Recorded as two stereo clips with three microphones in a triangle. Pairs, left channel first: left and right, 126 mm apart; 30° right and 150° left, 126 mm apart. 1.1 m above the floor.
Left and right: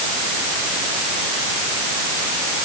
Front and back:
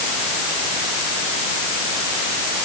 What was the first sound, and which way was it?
Only background noise.